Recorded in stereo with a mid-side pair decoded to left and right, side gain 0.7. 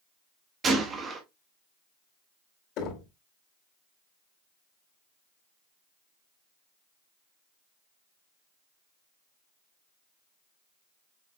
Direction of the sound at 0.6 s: 30° right.